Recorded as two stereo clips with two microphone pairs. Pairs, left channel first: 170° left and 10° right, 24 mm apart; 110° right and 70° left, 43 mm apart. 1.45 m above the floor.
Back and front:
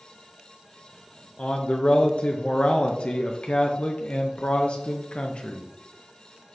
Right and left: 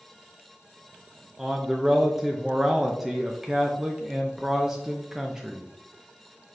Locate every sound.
1.4 s a man speaking: 140° left, 0.5 m